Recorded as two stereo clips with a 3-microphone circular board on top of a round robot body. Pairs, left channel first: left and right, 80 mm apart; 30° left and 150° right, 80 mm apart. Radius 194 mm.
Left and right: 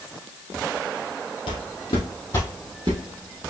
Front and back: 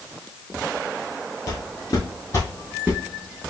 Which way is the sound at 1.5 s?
90° left.